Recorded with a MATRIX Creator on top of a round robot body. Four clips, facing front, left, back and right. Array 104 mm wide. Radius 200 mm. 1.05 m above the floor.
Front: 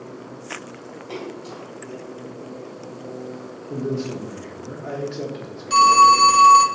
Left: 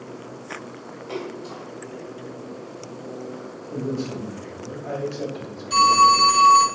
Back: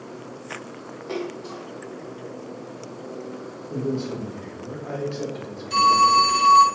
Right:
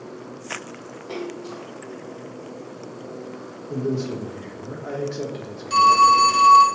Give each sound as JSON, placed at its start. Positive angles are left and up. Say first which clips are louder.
{"t": 1.1, "sound": "a splash", "louder": "right 1 dB, back 3 dB", "azimuth_deg": -150, "distance_m": 0.9}
{"t": 3.7, "sound": "a man speaking", "louder": "right 3 dB, front 1 dB", "azimuth_deg": -60, "distance_m": 1.1}
{"t": 5.7, "sound": "a phone ringing", "louder": "right 1 dB, front 4 dB", "azimuth_deg": -30, "distance_m": 0.7}